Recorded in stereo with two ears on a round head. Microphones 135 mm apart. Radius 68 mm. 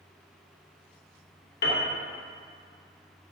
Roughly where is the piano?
Left.